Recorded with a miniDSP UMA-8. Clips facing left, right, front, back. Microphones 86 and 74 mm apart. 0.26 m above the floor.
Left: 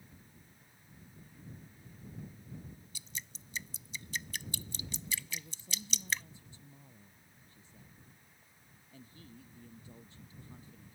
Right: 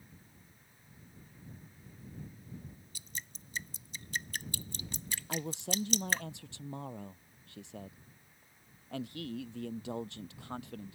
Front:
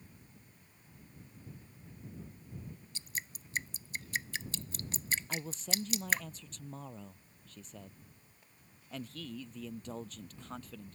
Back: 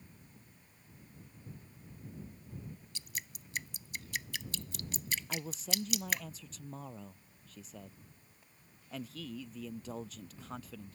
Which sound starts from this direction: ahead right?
Dripping, at 3.0 s.